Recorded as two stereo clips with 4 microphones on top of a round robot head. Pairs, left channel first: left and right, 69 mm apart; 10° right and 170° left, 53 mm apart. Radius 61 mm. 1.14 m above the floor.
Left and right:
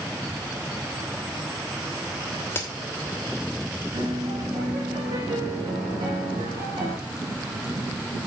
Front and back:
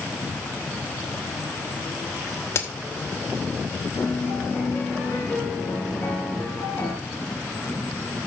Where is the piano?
65° right, 4 m.